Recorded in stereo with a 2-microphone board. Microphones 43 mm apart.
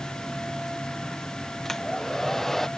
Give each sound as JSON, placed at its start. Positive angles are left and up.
{"t": 1.6, "sound": "a hair dryer", "side_deg": 10}